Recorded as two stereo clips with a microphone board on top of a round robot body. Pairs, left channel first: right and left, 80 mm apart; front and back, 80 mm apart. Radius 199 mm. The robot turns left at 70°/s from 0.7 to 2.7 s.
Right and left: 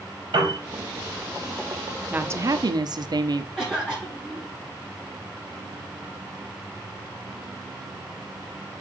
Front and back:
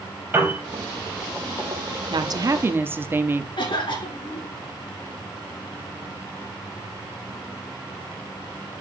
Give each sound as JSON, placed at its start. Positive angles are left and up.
{"t": 0.3, "sound": "a piano", "azimuth_deg": 115, "distance_m": 5.5}
{"t": 2.1, "sound": "a woman speaking", "azimuth_deg": 160, "distance_m": 1.3}
{"t": 3.6, "sound": "a cough", "azimuth_deg": 5, "distance_m": 6.0}